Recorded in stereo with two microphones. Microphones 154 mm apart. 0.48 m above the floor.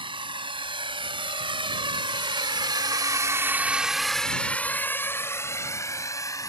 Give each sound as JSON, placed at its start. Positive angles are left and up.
{"t": 0.0, "sound": "a drone", "side_deg": -35}